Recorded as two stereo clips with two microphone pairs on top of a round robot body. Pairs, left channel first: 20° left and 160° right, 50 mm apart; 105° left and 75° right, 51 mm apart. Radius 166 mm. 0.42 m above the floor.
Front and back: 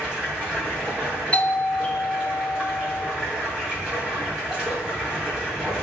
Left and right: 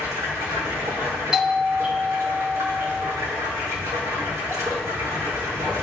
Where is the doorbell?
10° right, 1.9 m.